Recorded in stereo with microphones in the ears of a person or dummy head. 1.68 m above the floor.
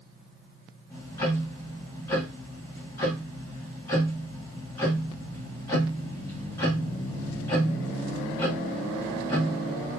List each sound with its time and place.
0.9 s ticking: 20° left (ahead or behind), 1.7 m